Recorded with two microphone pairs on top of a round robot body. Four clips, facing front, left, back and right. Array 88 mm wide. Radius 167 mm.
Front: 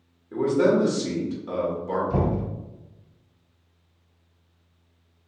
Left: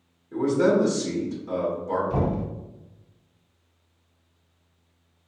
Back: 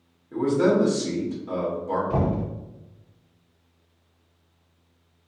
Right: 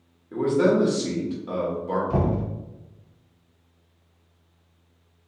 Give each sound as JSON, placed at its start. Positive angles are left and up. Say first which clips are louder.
{"t": 0.3, "sound": "a man speaking", "louder": "even, even", "azimuth_deg": -55, "distance_m": 1.4}
{"t": 2.1, "sound": "knocking", "louder": "right 1 dB, even", "azimuth_deg": -135, "distance_m": 1.7}